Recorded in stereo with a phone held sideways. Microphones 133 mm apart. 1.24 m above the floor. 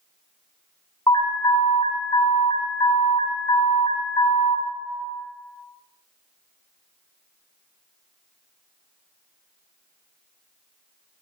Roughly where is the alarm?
Left.